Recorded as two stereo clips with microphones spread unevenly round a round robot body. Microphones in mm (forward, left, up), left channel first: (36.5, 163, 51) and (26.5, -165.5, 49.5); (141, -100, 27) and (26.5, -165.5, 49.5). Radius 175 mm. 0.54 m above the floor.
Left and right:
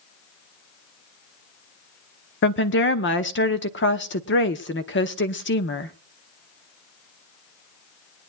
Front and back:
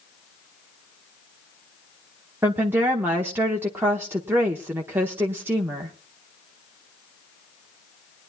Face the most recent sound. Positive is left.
turn(degrees=125)